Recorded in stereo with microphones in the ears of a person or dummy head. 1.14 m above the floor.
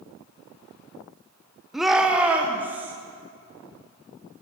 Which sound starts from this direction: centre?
A shout, at 1.7 s.